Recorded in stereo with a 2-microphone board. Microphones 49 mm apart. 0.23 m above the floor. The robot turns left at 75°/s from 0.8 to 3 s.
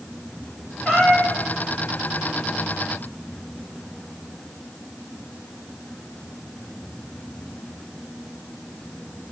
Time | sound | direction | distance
0.8 | a cat meowing | 175° left | 8 m